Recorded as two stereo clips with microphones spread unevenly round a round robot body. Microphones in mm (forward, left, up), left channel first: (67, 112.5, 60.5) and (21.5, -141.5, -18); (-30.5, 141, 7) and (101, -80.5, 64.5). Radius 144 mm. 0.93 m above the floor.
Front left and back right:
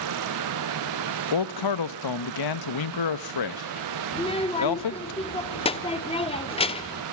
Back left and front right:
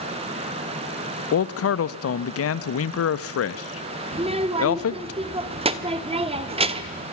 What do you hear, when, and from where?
1.3 s a man speaking: 95° left, 0.9 m
4.1 s a child speaking: 10° left, 1.3 m